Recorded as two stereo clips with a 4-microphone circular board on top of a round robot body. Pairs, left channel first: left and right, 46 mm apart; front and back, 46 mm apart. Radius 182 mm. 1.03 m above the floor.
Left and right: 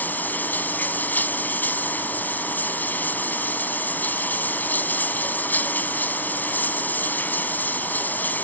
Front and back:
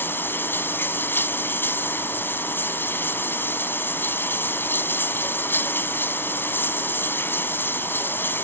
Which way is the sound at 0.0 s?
40° left.